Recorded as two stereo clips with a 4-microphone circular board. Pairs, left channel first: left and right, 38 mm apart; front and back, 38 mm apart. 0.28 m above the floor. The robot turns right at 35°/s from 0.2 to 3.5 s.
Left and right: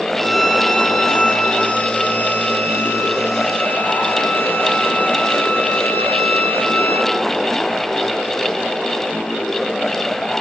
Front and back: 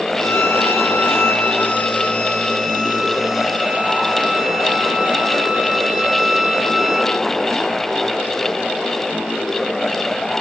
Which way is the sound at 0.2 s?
15° right.